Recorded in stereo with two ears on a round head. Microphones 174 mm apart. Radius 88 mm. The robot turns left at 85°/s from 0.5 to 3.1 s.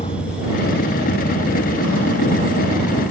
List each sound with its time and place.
0.0 s a vehicle: 30° left; by 3.1 s 170° left